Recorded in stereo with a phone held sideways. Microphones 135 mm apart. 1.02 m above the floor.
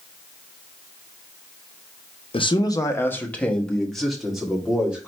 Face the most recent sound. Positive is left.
turn(degrees=-5)  # may be behind; listen again after turning